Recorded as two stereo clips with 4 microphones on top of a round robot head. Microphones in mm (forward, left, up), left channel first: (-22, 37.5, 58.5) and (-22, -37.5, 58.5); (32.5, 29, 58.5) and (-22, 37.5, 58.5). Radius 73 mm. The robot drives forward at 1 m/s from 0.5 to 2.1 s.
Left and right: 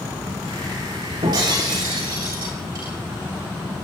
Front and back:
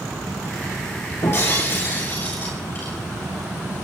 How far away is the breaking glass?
About 6 m.